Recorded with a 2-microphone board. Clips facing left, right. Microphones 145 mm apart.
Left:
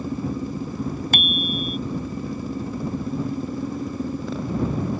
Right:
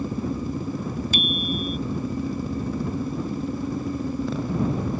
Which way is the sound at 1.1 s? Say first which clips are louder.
Even; 60° left (ahead or behind).